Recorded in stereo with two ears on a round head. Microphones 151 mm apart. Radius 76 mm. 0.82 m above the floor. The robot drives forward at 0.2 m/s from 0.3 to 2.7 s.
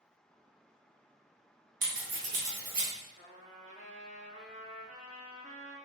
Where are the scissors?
55° right (ahead or behind), 1.1 m; by 2.9 s 50° right (ahead or behind), 1.1 m.